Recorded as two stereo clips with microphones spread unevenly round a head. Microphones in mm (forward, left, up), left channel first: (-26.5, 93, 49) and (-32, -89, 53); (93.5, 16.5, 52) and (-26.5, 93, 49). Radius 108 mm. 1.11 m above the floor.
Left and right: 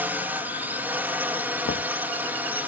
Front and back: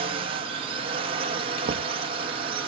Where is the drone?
170° right.